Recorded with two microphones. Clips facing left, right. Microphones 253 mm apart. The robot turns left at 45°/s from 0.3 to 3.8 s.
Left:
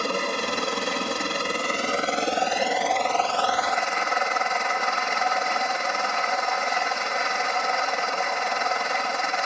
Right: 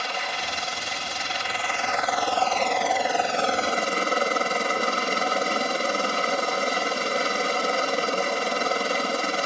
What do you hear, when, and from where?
0.0 s a helicopter: 115° left; by 9.4 s 45° right